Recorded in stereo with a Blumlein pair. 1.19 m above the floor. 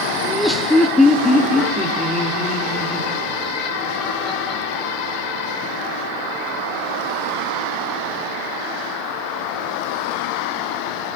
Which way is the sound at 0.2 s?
10° right.